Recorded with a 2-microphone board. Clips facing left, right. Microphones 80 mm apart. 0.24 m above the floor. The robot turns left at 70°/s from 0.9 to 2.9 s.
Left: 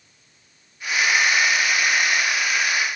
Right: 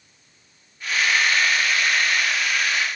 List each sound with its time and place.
Only background noise.